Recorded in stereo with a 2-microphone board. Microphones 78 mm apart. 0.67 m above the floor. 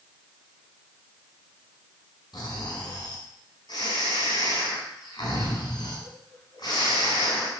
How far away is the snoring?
About 4 m.